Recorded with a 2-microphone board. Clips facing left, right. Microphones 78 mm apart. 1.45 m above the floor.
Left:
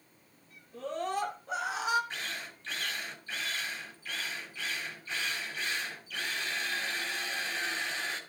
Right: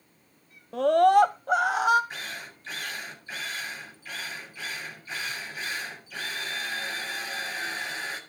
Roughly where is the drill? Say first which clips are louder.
Right 2 dB; centre.